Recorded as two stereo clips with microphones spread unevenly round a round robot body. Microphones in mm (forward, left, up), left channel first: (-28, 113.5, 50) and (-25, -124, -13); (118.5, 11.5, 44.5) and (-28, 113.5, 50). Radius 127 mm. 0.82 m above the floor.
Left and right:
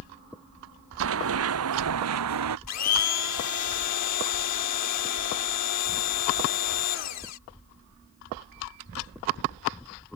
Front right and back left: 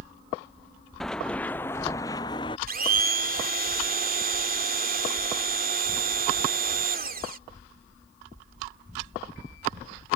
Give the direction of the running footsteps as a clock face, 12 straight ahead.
4 o'clock.